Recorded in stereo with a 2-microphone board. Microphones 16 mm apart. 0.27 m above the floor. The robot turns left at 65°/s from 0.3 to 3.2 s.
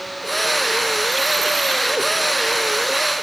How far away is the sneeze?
I don't hear a sneeze.